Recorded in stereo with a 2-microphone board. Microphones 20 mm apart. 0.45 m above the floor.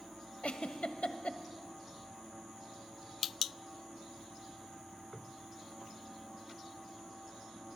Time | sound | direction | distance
0.4 | a giggle | 75° left (ahead or behind) | 1.0 m